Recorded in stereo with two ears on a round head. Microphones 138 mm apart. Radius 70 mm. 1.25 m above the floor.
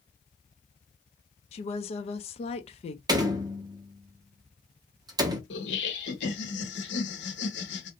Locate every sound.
1.5 s a woman speaking: 40° left (ahead or behind), 0.5 m
3.1 s a door slam: 25° right (ahead or behind), 0.6 m
5.5 s laughter: 80° left, 0.9 m